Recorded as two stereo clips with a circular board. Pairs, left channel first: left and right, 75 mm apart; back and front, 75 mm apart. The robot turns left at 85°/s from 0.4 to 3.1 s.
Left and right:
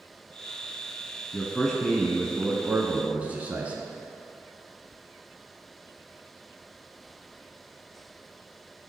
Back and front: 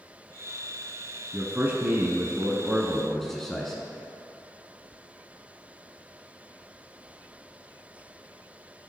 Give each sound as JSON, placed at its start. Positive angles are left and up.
{"t": 1.3, "sound": "a man speaking", "azimuth_deg": 45, "distance_m": 1.1}